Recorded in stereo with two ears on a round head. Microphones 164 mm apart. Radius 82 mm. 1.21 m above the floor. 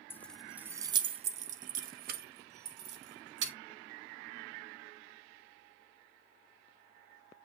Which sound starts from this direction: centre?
Keys jangling, at 0.1 s.